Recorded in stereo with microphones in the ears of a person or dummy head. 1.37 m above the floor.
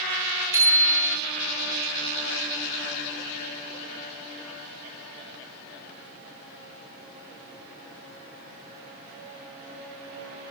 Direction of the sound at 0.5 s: 15° right (ahead or behind).